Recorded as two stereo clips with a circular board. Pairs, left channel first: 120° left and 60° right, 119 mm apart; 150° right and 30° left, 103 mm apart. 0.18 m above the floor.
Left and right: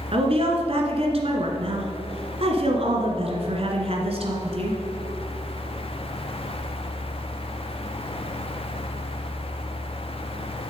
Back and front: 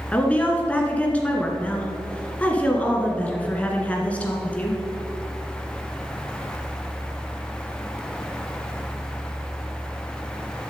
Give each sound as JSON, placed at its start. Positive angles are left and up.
{"t": 0.1, "sound": "a woman speaking", "azimuth_deg": -75, "distance_m": 1.8}